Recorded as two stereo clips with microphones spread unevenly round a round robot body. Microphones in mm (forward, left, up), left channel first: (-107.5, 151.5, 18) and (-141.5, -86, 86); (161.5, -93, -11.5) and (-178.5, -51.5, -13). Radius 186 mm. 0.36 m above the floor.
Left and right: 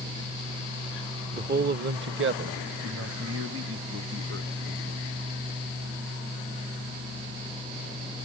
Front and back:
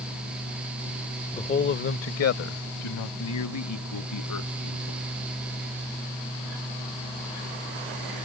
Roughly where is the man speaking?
Ahead right.